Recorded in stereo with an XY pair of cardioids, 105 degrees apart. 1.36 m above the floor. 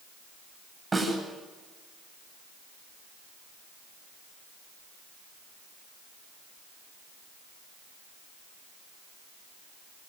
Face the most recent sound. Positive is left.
turn(degrees=-20)